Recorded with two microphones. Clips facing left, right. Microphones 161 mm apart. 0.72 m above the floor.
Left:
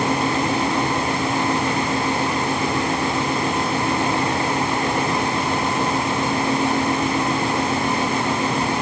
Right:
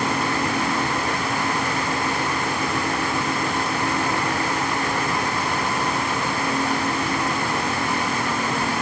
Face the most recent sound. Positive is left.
No sound to turn to.